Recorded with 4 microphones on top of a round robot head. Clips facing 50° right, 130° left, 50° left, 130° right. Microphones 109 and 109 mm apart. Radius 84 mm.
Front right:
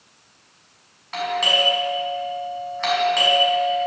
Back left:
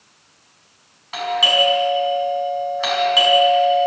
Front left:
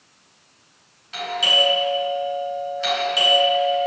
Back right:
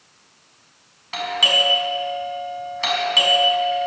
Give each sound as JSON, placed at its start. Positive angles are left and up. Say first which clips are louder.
{"t": 1.1, "sound": "a doorbell", "louder": "back left 3 dB, even", "azimuth_deg": -150, "distance_m": 4.5}